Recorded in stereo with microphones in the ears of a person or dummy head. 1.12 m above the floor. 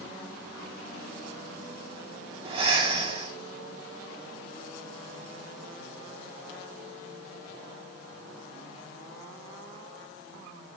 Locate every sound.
2.5 s breathing: 35° right (ahead or behind), 1.0 m